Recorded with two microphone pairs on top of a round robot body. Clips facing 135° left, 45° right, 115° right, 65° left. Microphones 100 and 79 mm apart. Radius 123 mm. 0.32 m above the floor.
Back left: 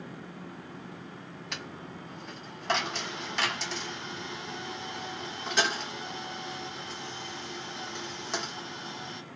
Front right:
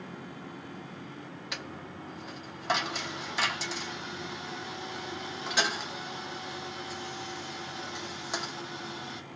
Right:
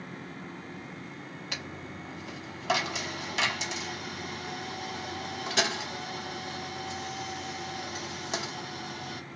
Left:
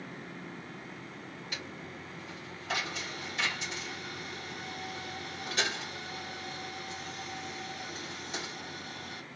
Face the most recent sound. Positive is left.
turn(degrees=-130)